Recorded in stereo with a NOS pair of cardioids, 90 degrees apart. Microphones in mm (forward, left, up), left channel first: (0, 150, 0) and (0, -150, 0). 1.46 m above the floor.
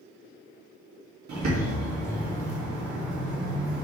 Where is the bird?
65° right, 2.5 m.